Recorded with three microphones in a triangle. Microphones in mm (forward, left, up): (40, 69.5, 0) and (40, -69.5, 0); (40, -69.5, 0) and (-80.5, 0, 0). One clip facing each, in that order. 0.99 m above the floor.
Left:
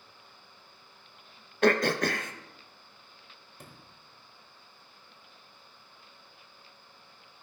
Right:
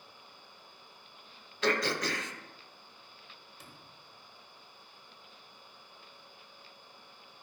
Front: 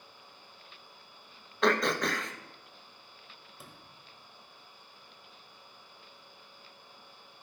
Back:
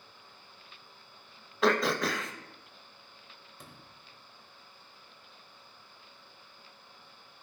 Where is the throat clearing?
65° left, 0.7 m.